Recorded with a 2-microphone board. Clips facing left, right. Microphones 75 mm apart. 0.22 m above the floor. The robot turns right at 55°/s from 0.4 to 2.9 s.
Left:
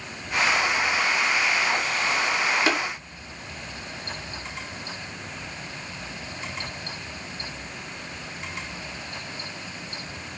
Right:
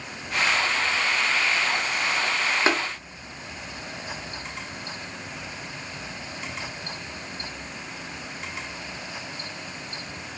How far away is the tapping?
About 3.5 m.